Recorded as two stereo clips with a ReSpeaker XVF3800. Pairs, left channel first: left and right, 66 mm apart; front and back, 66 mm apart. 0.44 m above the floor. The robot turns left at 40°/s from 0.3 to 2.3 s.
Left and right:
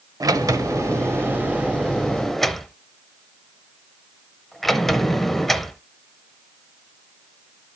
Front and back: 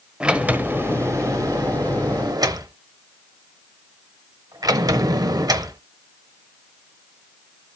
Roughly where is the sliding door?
Right.